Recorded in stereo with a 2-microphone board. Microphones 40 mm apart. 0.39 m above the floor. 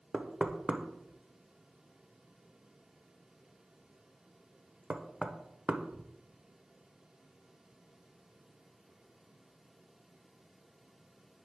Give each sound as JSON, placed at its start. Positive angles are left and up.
{"t": 0.1, "sound": "knocking", "side_deg": -25, "distance_m": 0.6}